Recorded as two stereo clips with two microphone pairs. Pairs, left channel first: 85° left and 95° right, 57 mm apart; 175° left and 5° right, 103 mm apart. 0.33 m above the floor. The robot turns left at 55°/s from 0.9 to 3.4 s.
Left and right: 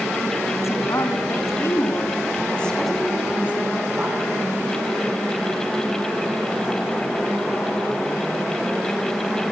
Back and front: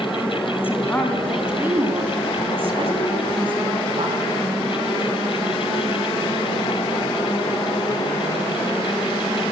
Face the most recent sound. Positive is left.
turn(degrees=-30)